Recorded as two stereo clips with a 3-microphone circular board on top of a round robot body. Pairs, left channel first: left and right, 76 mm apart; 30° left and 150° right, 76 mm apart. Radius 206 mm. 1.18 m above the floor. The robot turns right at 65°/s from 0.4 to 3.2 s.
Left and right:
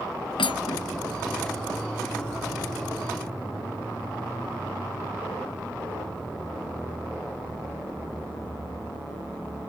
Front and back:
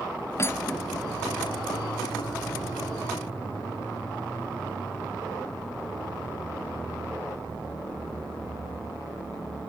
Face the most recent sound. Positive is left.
turn(degrees=-90)